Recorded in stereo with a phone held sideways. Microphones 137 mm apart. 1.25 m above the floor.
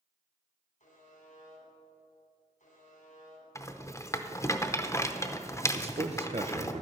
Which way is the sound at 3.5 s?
20° left (ahead or behind).